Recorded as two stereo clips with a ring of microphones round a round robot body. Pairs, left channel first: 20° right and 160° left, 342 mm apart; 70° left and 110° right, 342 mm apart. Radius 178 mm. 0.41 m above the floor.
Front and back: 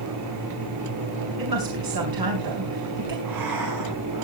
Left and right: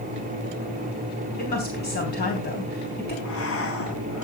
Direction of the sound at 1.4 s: 130° left.